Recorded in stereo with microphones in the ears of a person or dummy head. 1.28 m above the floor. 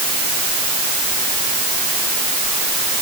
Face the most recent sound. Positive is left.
No sound to turn to.